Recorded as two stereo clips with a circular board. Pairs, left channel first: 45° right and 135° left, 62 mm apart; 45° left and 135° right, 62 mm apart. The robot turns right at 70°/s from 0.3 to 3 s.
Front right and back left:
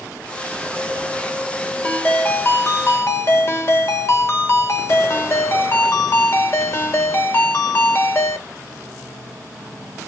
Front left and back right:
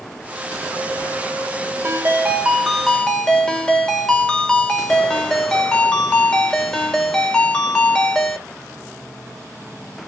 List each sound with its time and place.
1.8 s a ringtone: 110° right, 0.9 m; by 8.4 s 25° right, 0.9 m